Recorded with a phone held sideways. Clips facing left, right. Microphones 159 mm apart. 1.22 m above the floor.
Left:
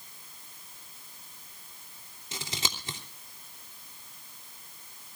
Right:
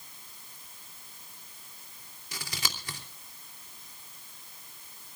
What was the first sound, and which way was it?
Scissors, 25° left (ahead or behind).